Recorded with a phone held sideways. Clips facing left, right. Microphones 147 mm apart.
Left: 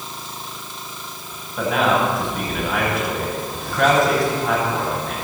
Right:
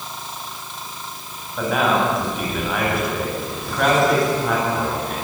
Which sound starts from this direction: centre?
A man speaking, at 1.6 s.